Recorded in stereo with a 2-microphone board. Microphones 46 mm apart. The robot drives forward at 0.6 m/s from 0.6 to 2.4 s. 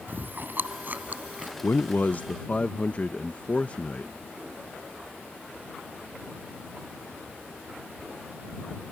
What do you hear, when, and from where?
0.1 s chewing: 50° right (ahead or behind); by 1.5 s 45° right (ahead or behind)
1.6 s a man speaking: 55° left (ahead or behind); by 4.1 s 30° left (ahead or behind)